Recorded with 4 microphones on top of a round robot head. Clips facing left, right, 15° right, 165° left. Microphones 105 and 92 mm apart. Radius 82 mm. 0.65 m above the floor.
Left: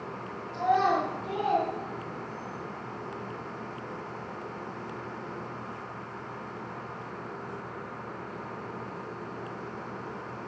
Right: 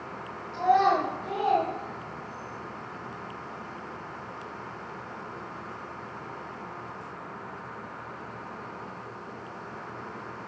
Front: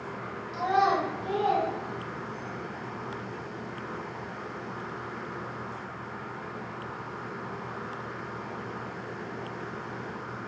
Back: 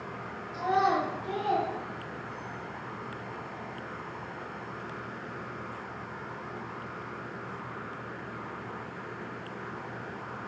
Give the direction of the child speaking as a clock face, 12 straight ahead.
1 o'clock.